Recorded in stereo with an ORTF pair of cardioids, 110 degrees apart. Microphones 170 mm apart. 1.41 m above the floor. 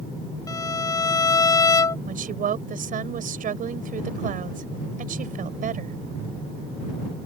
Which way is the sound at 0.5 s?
20° left.